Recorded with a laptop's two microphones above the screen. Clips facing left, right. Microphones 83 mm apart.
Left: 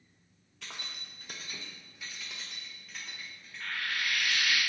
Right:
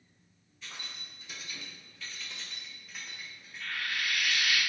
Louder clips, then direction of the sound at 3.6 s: Even; 35° left (ahead or behind).